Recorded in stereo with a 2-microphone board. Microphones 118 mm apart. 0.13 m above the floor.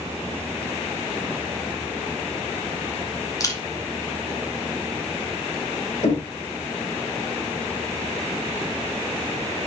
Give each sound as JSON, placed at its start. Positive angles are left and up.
{"t": 3.4, "sound": "a camera shutter", "side_deg": 30, "distance_m": 1.5}
{"t": 6.0, "sound": "knocking", "side_deg": 60, "distance_m": 2.5}